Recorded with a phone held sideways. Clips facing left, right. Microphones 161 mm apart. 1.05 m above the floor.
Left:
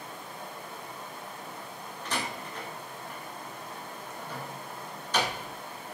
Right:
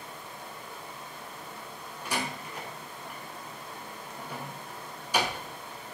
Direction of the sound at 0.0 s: 50° left (ahead or behind).